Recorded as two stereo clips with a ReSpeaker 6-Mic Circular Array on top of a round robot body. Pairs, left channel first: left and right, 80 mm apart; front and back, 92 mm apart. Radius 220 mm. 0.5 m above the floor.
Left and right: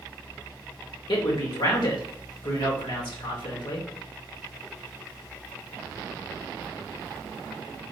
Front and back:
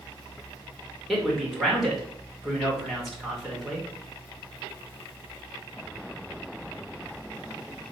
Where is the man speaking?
90° left, 3 m.